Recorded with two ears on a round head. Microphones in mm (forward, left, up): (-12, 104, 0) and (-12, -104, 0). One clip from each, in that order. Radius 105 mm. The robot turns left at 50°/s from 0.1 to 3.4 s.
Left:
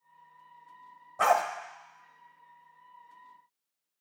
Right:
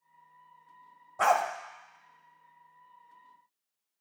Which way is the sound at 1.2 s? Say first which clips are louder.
Even; 5° left (ahead or behind).